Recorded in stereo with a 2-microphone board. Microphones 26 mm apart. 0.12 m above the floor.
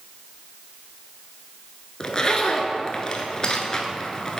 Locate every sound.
2.0 s a zipper: 30° left (ahead or behind), 0.6 m